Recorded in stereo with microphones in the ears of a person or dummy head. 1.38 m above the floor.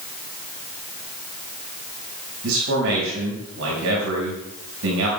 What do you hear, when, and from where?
2.4 s a man speaking: 75° right (ahead or behind), 6.5 m